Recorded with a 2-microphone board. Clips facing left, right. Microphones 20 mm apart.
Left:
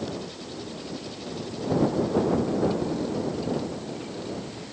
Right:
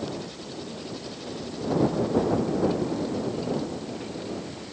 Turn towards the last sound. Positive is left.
No sound to turn to.